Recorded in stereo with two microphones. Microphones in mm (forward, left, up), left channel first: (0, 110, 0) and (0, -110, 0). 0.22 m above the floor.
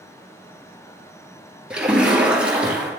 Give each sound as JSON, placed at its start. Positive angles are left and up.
{"t": 1.7, "sound": "a splash", "side_deg": -5, "distance_m": 1.7}